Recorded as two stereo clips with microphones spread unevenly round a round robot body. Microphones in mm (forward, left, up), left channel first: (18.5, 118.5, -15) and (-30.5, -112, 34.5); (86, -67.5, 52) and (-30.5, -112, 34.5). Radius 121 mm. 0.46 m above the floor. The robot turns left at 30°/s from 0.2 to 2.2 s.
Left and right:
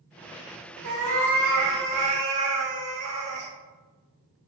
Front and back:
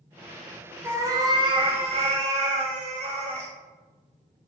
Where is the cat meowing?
85° right, 0.8 m; by 3.5 s 130° right, 0.8 m.